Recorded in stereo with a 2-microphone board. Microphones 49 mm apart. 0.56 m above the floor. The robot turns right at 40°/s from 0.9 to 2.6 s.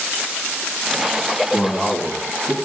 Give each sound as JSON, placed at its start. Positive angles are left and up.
{"t": 1.5, "sound": "a man speaking", "azimuth_deg": 160, "distance_m": 4.5}